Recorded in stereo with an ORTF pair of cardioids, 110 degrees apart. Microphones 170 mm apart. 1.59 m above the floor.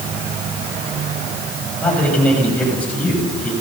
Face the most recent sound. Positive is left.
turn(degrees=10)